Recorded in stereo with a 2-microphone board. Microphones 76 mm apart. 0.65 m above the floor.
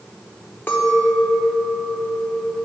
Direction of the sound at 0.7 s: 25° left (ahead or behind).